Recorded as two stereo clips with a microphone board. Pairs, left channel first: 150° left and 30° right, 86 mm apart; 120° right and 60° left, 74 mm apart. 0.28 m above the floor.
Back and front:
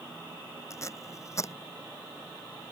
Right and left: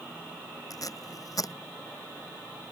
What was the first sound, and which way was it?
Tape being pulled, 155° right.